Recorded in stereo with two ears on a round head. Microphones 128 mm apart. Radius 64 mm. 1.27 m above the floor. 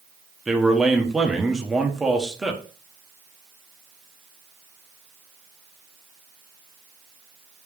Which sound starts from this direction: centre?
A man speaking, at 0.5 s.